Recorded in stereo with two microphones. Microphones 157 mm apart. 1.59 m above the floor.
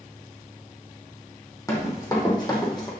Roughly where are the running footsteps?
Left.